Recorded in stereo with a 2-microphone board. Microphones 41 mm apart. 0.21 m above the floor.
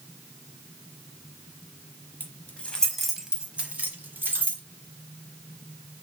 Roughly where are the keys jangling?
Left.